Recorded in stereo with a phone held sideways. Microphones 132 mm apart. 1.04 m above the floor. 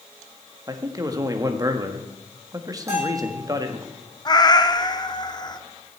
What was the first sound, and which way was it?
A man speaking, 30° right (ahead or behind).